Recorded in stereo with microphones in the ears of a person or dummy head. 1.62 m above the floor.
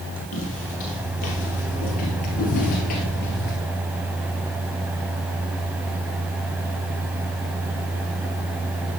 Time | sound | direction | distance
0.3 | footsteps | 30° left (ahead or behind) | 3 m